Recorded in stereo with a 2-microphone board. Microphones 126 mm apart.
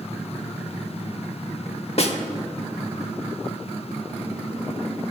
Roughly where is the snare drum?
Left.